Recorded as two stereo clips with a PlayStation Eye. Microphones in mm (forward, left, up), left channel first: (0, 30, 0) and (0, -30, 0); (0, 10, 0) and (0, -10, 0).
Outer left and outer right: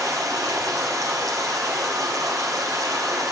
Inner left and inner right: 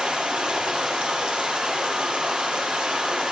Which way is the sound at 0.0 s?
75° right (ahead or behind).